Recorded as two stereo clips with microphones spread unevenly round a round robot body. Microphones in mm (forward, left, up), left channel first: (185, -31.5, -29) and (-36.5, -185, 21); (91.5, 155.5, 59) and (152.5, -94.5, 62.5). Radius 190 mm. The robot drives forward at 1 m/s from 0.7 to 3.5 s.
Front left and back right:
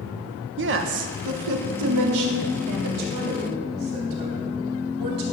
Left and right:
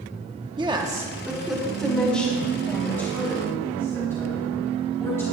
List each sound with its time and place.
0.6 s a woman speaking: 135° right, 0.8 m; by 5.2 s 175° right, 3 m